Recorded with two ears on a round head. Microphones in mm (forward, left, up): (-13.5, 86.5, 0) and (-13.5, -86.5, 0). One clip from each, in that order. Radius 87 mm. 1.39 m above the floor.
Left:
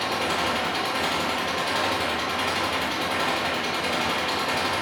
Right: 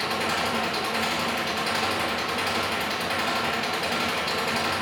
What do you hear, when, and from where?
0.0 s an engine running: 80° right, 6 m